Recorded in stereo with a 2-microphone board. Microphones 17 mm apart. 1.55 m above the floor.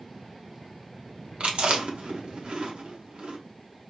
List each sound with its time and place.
1.4 s chewing: 85° right, 1.3 m